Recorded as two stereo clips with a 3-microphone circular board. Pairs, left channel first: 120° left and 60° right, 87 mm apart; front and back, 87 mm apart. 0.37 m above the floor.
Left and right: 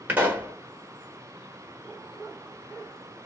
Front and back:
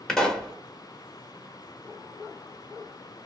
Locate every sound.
0.1 s a pop: 70° right, 1.2 m